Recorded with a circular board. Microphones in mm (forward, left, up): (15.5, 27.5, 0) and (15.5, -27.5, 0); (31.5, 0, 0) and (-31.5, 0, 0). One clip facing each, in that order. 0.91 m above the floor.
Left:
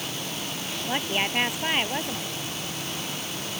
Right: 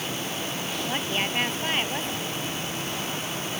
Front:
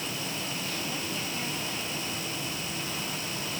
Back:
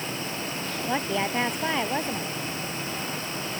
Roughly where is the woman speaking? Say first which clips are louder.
Left 3 dB, back 8 dB; behind.